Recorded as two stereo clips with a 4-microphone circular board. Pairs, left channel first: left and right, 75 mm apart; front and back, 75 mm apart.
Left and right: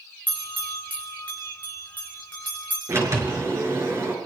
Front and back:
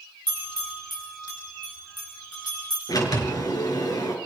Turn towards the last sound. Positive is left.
turn(degrees=-35)